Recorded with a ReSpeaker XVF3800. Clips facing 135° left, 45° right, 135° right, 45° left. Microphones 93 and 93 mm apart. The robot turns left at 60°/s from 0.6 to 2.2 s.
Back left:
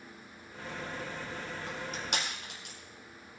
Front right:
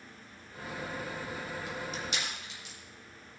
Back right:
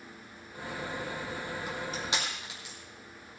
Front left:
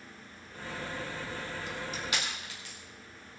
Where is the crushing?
170° right, 5 m; by 2.8 s 155° left, 5 m.